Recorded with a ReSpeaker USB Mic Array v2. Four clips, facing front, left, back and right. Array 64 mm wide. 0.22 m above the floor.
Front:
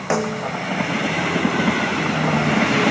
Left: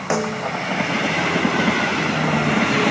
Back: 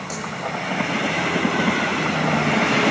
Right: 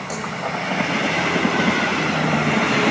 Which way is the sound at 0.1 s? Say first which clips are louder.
Left 6 dB, front 9 dB; 40° left.